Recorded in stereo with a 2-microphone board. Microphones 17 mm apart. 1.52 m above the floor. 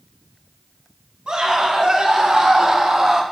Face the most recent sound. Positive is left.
turn(degrees=-25)  # may be behind; listen again after turning